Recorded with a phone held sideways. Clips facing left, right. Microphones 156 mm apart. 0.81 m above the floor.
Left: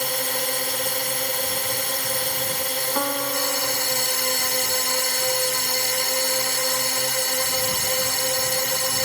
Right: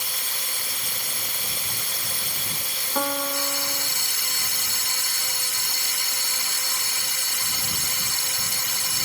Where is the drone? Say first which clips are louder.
Left 13 dB; 65° left (ahead or behind).